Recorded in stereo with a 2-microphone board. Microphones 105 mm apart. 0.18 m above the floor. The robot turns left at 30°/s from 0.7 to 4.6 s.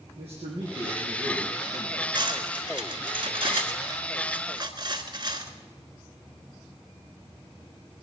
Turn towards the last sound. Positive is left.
turn(degrees=-45)  # may be behind; listen again after turning